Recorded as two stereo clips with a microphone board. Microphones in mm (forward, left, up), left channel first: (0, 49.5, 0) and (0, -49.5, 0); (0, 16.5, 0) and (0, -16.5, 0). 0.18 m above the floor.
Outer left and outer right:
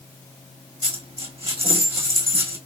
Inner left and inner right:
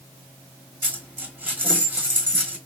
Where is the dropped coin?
85° right, 1.7 m.